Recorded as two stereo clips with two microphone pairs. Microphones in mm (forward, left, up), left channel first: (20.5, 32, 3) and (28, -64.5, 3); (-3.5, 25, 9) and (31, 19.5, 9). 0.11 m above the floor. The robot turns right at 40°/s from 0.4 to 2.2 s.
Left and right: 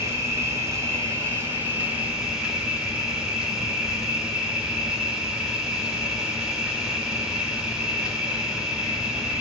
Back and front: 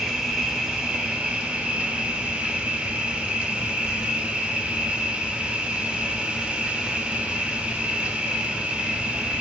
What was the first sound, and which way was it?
An insect, 80° right.